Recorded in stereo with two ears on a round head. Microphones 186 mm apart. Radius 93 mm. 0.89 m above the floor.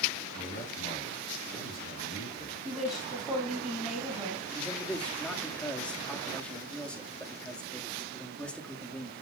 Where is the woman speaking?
Centre (ahead or behind), 6 m.